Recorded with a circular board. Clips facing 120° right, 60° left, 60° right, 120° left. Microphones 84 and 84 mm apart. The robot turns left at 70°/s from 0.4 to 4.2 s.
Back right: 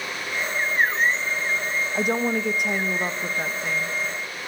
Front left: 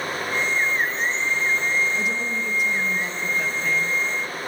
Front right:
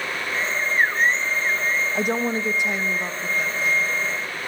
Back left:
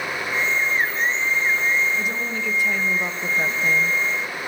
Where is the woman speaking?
80° right, 1.3 m; by 4.0 s 135° left, 1.3 m.